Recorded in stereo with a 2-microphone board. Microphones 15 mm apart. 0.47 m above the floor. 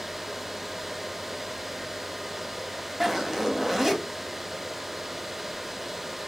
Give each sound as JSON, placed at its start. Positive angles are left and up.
{"t": 3.0, "sound": "a zipper", "side_deg": -15, "distance_m": 0.6}